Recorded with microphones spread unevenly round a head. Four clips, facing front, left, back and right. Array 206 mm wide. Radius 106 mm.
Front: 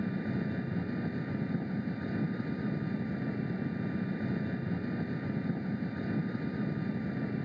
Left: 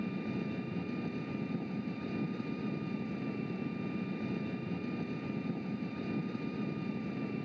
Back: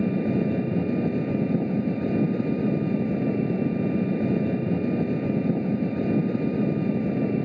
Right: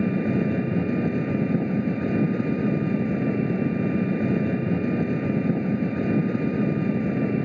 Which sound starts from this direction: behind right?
An engine running, at 0.0 s.